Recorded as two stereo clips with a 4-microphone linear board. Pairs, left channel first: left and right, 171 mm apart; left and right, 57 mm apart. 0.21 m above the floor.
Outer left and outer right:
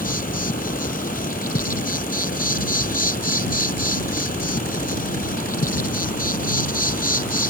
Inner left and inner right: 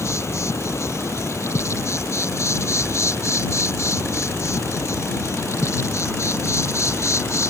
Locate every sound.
0.0 s an insect: 55° left (ahead or behind)